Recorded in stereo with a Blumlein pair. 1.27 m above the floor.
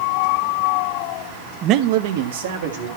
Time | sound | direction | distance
1.6 | a man speaking | 30° right | 0.5 m